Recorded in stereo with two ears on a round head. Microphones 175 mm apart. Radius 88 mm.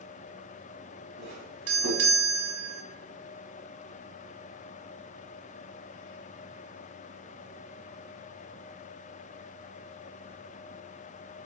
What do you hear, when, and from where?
1.2 s a doorbell: 65° right (ahead or behind), 3 m